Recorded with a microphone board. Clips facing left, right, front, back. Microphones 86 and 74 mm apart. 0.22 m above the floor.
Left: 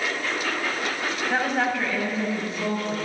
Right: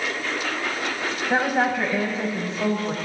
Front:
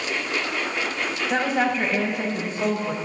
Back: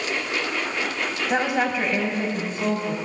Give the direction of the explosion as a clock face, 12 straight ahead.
No explosion in this recording.